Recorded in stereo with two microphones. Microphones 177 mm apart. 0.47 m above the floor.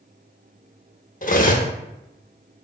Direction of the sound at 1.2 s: 45° left (ahead or behind).